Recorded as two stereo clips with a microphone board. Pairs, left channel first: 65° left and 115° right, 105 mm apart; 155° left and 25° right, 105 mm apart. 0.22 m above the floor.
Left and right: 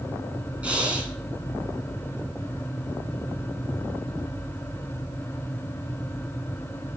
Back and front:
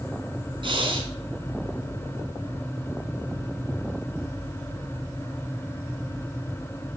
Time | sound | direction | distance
0.6 | breathing | 35° right | 2.5 m